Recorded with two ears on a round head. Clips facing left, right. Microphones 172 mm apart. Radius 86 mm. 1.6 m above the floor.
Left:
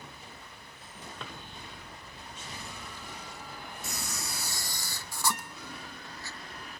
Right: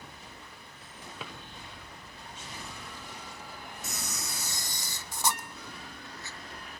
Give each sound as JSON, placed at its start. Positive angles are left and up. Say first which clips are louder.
{"t": 1.2, "sound": "a drawer", "louder": "right 1 dB", "side_deg": -5, "distance_m": 0.9}
{"t": 3.8, "sound": "a camera shutter", "louder": "even", "side_deg": -20, "distance_m": 1.0}
{"t": 5.3, "sound": "a guitar", "louder": "left 1 dB", "side_deg": 90, "distance_m": 2.0}